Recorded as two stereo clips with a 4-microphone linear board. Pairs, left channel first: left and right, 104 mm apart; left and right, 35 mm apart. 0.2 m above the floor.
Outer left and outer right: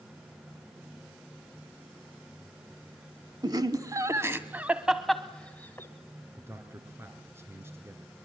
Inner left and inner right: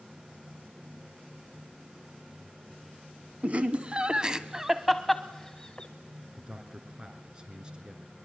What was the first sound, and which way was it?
Laughter, 45° right (ahead or behind).